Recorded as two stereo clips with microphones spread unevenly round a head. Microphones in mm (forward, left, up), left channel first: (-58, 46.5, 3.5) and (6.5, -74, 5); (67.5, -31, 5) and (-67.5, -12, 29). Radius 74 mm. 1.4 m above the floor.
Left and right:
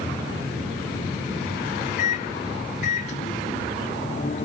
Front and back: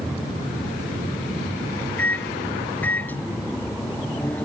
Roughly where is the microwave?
Left.